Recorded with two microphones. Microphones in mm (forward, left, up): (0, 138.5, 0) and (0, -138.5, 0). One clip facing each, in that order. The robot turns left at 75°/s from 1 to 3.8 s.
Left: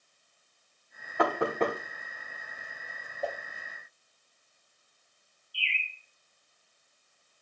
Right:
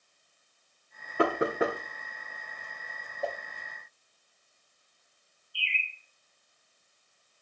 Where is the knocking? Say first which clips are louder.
Right 1 dB; 35° right (ahead or behind), 1.3 m; by 1.8 s centre (ahead or behind), 1.3 m.